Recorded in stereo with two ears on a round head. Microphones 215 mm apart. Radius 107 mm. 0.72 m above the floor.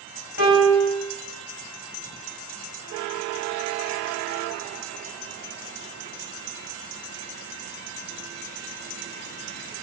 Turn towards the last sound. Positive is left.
turn(degrees=70)  # may be behind; listen again after turning